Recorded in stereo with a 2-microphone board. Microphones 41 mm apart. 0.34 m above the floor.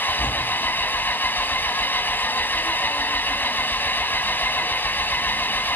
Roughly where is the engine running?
Left.